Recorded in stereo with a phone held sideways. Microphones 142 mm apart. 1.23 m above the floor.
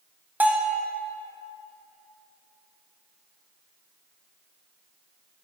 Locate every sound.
0.4 s a bell: 10° right (ahead or behind), 0.9 m